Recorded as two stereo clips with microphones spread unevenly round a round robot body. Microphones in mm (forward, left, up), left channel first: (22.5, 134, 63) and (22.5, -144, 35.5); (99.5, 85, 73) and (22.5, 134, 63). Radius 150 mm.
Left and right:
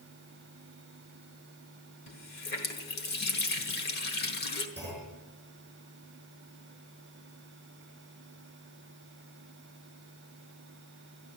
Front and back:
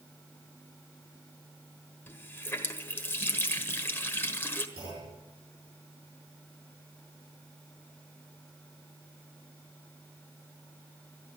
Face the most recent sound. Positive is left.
turn(degrees=175)